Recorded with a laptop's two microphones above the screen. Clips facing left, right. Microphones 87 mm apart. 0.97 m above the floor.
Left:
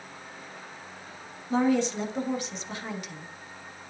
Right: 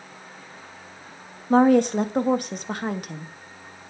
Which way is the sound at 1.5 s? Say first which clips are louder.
Right 8 dB; 55° right (ahead or behind).